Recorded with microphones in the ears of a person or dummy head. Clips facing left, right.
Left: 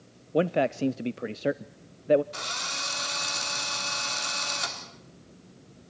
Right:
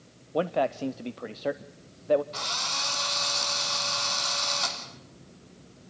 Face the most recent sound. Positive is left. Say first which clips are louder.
# right 2 dB
turn(degrees=35)  # may be behind; listen again after turning